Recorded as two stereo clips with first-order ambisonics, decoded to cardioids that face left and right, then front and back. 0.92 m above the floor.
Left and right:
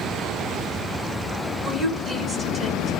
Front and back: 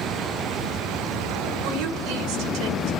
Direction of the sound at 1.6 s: 165° left.